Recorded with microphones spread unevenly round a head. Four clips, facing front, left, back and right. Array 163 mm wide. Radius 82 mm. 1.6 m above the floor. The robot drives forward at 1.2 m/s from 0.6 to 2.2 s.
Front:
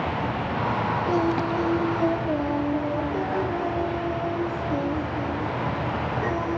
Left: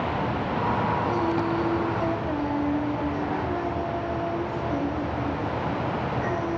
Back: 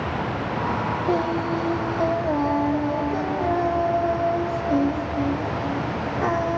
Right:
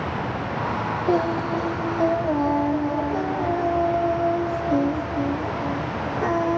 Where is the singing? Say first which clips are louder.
Right 3 dB, back 1 dB; 115° right, 2 m; by 6.6 s 140° right, 3 m.